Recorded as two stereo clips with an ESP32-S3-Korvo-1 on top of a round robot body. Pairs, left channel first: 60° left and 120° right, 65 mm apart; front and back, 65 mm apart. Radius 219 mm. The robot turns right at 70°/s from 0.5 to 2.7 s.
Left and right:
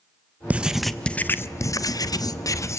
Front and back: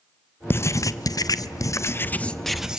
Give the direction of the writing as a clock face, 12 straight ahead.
2 o'clock.